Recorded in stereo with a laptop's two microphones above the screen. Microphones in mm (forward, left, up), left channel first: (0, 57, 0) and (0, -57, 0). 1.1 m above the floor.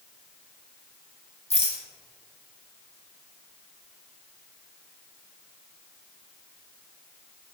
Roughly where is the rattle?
Left.